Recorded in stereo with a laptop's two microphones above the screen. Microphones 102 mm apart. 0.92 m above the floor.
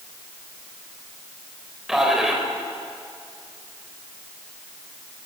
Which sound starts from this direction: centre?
A man speaking, at 1.9 s.